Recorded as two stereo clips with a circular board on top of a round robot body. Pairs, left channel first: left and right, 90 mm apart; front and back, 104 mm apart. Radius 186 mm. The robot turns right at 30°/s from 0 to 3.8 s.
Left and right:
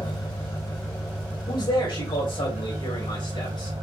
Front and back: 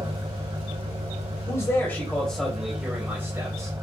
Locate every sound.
0.0 s an engine running: 130° left, 2.5 m; by 3.8 s 115° right, 2.5 m
1.5 s a man speaking: 60° left, 3 m; by 3.7 s 125° left, 3 m